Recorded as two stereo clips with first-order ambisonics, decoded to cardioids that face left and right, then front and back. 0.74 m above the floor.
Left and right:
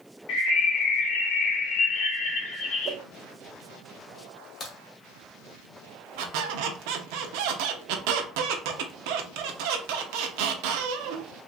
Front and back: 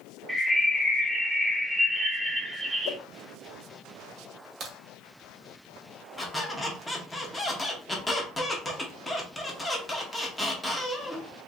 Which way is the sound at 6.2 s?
85° right.